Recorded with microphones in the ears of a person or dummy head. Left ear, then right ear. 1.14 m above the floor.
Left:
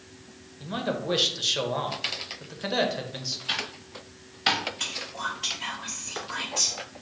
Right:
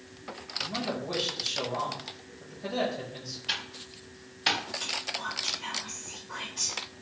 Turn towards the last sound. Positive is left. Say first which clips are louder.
# left 1 dB
turn(degrees=50)  # may be behind; listen again after turning